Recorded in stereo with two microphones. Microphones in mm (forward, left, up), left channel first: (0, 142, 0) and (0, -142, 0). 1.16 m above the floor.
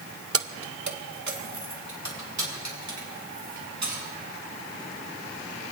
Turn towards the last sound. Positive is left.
turn(degrees=-75)  # may be behind; listen again after turning